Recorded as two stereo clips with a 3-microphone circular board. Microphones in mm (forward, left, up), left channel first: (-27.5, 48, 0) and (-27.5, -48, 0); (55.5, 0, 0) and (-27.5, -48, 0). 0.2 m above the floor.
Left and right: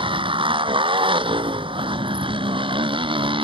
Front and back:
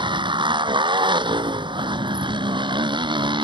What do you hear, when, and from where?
0.0 s a motorcycle: 115° right